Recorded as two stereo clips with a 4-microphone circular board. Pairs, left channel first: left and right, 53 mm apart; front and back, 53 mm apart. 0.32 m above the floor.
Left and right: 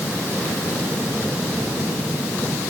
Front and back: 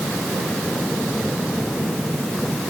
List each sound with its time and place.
Only background noise.